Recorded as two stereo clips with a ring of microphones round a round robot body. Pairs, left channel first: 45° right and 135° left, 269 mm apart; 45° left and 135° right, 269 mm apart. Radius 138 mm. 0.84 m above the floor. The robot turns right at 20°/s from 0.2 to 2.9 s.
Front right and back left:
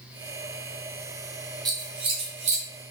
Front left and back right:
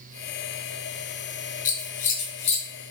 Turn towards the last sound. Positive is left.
turn(degrees=100)